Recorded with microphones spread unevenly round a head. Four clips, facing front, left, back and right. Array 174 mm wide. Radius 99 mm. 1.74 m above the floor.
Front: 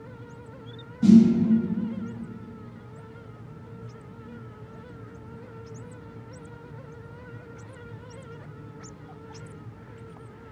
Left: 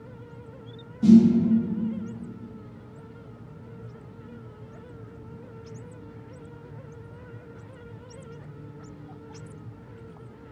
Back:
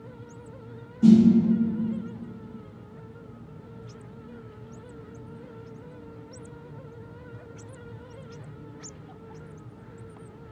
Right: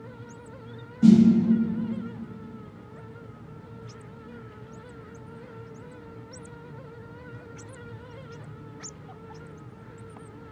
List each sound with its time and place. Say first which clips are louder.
1.0 s a snare drum: left 1 dB, front 1 dB; 60° right, 1.3 m